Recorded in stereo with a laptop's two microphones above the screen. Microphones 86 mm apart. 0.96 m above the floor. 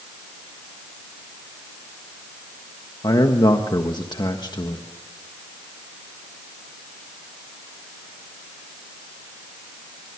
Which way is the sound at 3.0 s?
55° left (ahead or behind).